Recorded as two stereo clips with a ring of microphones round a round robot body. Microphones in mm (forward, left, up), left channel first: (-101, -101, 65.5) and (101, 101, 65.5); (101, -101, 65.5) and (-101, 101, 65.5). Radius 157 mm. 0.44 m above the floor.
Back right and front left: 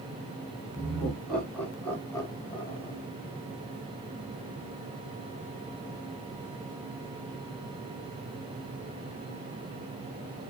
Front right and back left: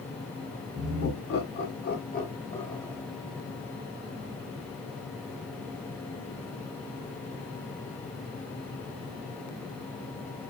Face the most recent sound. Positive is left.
turn(degrees=-115)